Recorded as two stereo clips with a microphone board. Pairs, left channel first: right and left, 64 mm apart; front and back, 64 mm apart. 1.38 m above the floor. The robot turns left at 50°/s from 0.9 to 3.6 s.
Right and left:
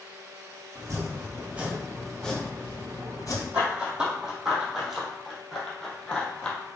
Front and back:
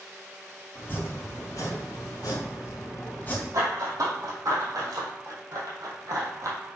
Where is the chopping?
55° left, 3 m; by 3.4 s 70° right, 3 m.